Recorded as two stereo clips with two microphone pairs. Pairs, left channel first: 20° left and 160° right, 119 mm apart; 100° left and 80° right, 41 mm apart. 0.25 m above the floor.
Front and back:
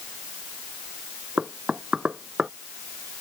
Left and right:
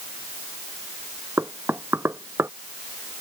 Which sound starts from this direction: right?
Knocking, at 1.4 s.